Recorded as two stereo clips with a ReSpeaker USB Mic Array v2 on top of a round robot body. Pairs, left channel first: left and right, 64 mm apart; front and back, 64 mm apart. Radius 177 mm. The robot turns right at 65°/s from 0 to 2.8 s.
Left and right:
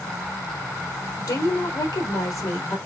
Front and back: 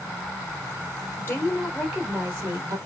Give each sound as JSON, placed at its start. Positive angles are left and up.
{"t": 1.2, "sound": "a woman speaking", "azimuth_deg": 50, "distance_m": 3.5}